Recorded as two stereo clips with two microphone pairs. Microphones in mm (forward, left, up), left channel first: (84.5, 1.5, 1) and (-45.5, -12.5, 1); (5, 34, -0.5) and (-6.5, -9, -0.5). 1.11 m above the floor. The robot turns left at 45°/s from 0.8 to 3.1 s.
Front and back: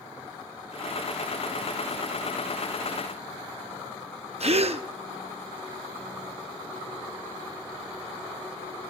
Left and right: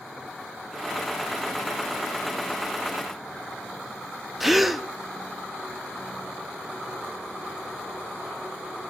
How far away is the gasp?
About 0.6 m.